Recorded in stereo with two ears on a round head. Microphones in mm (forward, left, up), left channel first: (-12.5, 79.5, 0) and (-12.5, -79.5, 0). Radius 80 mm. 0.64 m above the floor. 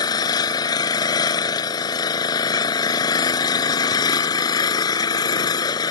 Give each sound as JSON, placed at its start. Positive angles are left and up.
{"t": 0.0, "sound": "an engine running", "side_deg": 20}